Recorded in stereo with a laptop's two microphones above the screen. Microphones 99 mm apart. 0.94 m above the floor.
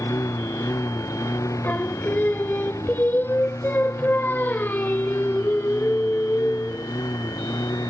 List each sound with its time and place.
0.0 s a lawn mower: 30° left (ahead or behind); by 7.9 s 35° left (ahead or behind)
1.6 s singing: 20° left (ahead or behind)